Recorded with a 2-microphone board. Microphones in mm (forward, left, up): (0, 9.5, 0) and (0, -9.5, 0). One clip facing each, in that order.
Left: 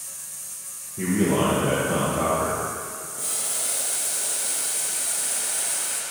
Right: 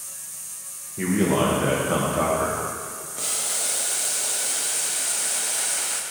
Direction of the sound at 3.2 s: 45° right (ahead or behind).